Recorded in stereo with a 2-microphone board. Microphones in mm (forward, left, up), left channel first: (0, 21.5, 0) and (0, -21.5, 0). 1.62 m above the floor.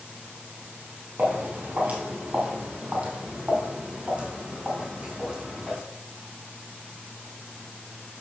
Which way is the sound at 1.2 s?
40° right (ahead or behind).